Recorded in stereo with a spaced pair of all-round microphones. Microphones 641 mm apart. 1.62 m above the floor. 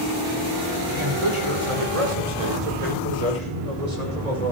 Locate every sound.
0.9 s a man speaking: 45° right (ahead or behind), 6 m; by 4.5 s 80° right, 8 m